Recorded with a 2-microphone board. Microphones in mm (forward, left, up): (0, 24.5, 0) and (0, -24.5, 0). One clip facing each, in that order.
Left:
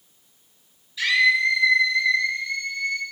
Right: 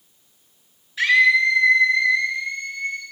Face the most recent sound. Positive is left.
turn(degrees=-45)  # may be behind; listen again after turning